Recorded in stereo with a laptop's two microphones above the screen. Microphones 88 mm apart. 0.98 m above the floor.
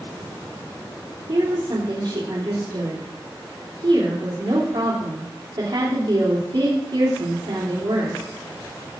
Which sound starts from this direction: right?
A woman speaking, at 1.3 s.